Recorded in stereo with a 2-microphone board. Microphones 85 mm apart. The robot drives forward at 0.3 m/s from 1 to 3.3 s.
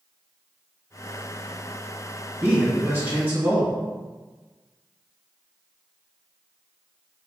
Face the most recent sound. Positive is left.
turn(degrees=-20)  # may be behind; listen again after turning